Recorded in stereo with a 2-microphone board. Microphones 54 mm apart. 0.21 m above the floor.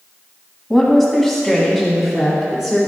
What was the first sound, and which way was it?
A woman speaking, 5° left (ahead or behind).